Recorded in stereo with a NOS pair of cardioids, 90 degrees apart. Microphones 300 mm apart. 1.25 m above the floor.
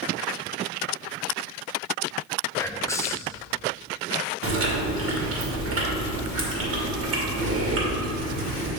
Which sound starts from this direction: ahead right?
Chewing, at 4.4 s.